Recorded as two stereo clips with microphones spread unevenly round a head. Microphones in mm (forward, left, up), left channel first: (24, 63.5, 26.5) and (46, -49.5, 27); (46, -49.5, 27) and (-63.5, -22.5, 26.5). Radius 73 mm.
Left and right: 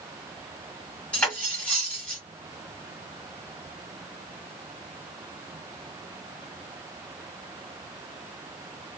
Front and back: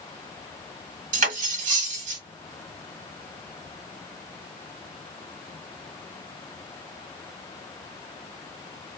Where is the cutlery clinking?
175° right, 1.6 m.